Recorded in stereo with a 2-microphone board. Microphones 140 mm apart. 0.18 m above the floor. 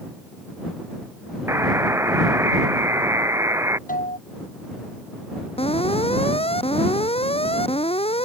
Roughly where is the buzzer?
Centre.